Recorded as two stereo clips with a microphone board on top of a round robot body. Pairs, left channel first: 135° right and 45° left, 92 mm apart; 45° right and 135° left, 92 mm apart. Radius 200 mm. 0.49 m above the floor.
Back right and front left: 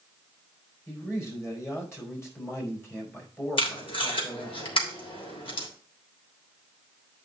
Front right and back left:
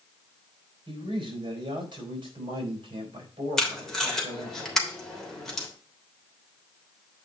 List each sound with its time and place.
0.9 s a man speaking: 165° left, 4.5 m
3.6 s tape being pulled: 130° right, 3 m